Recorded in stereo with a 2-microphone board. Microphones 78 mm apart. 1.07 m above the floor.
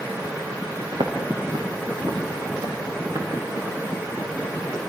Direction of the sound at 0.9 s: 75° right (ahead or behind).